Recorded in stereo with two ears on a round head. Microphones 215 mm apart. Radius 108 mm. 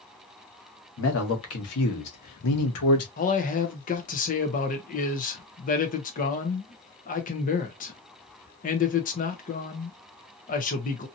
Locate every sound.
1.0 s a man speaking: 55° left (ahead or behind), 1.4 m; by 3.1 s 65° left (ahead or behind), 1.0 m
3.2 s a man speaking: 35° left (ahead or behind), 0.8 m